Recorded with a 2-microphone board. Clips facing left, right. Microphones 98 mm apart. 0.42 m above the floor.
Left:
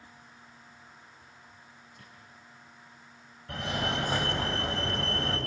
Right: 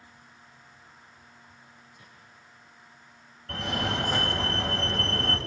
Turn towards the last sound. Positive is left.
turn(degrees=10)  # may be behind; listen again after turning